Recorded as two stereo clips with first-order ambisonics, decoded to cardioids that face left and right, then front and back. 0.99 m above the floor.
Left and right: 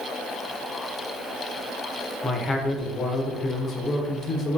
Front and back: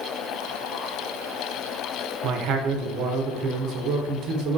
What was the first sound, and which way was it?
A man speaking, 160° left.